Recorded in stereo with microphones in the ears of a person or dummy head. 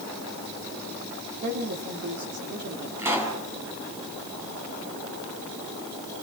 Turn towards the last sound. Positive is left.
turn(degrees=-20)  # may be behind; listen again after turning